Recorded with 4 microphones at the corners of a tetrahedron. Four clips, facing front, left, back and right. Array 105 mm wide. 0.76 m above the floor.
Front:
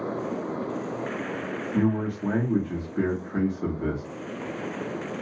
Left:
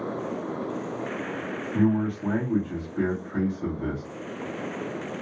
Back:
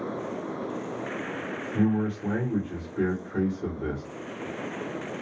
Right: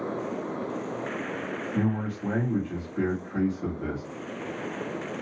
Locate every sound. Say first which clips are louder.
1.7 s a man speaking: left 6 dB, even; 5° left, 1.4 m